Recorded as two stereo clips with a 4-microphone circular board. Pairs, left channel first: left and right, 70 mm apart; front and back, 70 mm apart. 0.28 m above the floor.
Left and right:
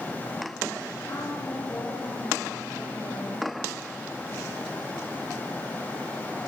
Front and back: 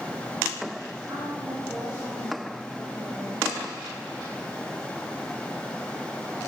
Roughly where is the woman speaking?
Behind left.